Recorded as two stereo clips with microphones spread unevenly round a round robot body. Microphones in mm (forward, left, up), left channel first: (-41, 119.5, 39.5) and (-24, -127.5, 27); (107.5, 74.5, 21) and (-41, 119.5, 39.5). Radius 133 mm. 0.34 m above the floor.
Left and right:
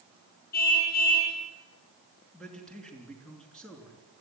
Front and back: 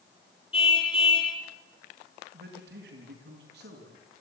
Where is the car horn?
35° left, 6.5 m.